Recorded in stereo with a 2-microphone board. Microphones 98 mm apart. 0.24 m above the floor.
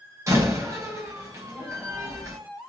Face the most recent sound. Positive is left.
turn(degrees=-30)  # may be behind; listen again after turning